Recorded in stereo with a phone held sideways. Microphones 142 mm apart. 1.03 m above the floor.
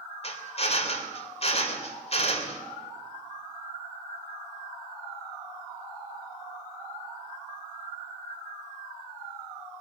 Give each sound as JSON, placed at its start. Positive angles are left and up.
{"t": 0.2, "sound": "a drill", "side_deg": 45, "distance_m": 3.0}